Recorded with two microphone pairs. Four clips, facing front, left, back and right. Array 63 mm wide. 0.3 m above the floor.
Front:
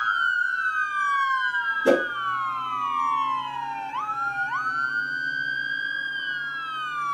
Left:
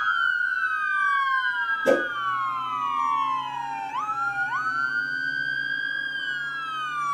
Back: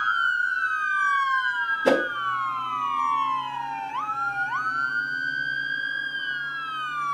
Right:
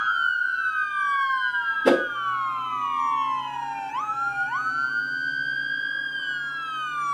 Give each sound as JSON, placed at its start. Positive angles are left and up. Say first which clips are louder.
{"t": 1.9, "sound": "a whoosh", "louder": "right 2 dB, front 1 dB", "azimuth_deg": -125, "distance_m": 1.7}